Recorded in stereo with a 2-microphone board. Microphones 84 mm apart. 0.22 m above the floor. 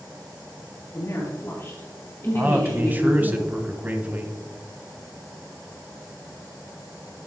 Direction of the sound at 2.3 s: 25° right (ahead or behind).